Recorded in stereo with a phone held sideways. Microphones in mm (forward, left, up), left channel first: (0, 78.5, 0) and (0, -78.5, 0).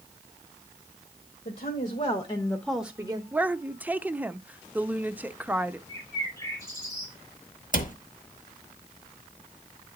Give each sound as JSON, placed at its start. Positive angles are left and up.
{"t": 1.4, "sound": "a woman speaking", "side_deg": 60, "distance_m": 1.5}
{"t": 3.3, "sound": "a woman speaking", "side_deg": -10, "distance_m": 0.5}
{"t": 5.9, "sound": "a bird", "side_deg": 20, "distance_m": 4.5}
{"t": 7.7, "sound": "a cupboard door", "side_deg": 55, "distance_m": 0.9}